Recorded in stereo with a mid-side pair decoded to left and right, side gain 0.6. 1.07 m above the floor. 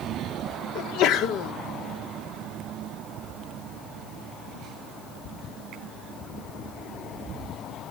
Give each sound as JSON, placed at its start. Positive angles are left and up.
{"t": 0.8, "sound": "a sneeze", "azimuth_deg": 65, "distance_m": 2.0}